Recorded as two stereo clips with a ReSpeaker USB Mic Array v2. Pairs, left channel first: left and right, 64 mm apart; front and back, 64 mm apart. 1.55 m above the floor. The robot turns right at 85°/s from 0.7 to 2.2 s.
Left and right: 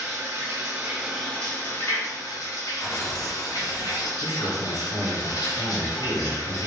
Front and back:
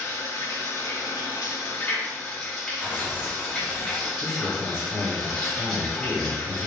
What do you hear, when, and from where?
0.0 s running water: 45° right, 1.5 m; by 6.7 s 85° left, 1.5 m
2.8 s tearing paper: 110° left, 0.9 m
4.2 s a man speaking: 45° left, 1.1 m